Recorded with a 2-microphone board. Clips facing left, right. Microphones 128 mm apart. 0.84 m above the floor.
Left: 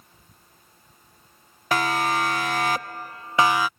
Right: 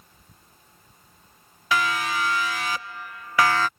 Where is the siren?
45° left (ahead or behind); by 3.7 s 10° left (ahead or behind).